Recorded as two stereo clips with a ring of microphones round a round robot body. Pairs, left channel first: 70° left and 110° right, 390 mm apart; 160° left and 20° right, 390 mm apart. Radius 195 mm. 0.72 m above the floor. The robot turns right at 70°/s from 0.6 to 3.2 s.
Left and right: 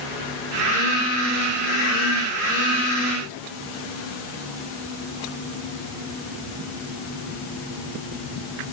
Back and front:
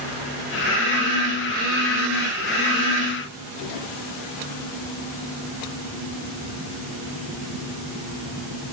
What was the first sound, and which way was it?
Only background noise.